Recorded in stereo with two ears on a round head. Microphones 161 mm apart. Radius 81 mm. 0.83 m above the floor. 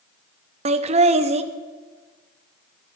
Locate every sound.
0.7 s laughter: 35° right (ahead or behind), 0.7 m